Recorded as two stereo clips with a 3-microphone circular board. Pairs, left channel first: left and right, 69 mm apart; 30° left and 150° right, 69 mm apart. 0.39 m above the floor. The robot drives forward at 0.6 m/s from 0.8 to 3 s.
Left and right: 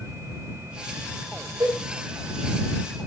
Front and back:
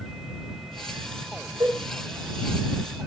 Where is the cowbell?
120° right, 9 m.